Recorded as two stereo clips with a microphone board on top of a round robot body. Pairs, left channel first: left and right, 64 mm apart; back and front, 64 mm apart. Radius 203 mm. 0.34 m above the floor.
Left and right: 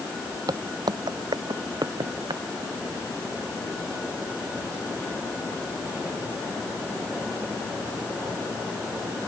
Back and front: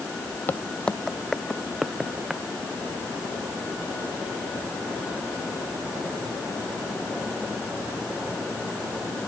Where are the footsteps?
120° right; by 2.4 s 85° right.